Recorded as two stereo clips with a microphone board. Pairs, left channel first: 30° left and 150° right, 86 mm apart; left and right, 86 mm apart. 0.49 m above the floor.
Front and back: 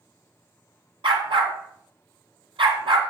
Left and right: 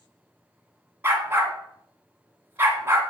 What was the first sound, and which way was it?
A dog barking, 155° right.